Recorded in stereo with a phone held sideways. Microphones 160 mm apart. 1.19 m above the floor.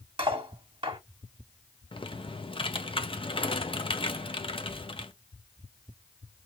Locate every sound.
0.2 s cutlery clinking: 30° right (ahead or behind), 1.6 m
1.9 s typing on a keyboard: 35° left (ahead or behind), 0.6 m